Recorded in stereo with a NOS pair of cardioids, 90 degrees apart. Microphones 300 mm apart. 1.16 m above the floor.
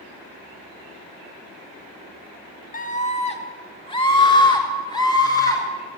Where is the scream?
25° left, 1.6 m; by 5.6 s 10° left, 5 m.